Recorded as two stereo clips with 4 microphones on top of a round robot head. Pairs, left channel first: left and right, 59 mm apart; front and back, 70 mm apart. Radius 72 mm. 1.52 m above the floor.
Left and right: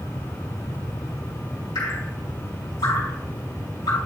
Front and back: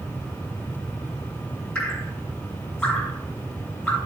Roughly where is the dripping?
Left.